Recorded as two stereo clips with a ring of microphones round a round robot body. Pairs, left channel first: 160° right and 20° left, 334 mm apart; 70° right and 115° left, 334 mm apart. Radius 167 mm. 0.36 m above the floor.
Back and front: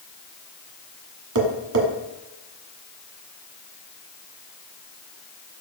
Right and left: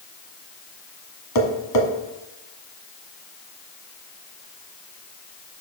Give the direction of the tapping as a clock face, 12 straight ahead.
1 o'clock.